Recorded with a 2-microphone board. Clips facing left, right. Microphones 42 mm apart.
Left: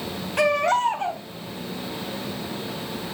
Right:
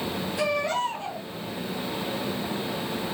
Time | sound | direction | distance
0.4 | a baby crying | 60° left (ahead or behind) | 3 m